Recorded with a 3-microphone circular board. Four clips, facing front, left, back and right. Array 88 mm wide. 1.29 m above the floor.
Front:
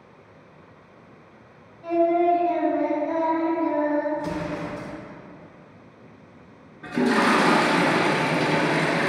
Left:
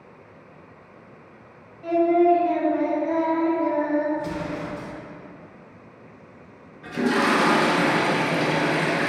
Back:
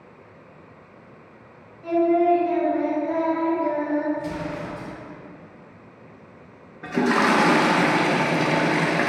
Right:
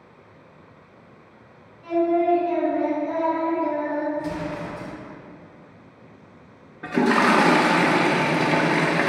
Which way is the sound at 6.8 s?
115° right.